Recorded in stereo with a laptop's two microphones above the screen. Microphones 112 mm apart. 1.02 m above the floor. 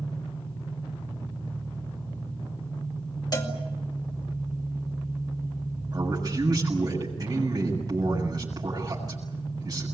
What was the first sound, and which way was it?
An engine running, 20° left (ahead or behind).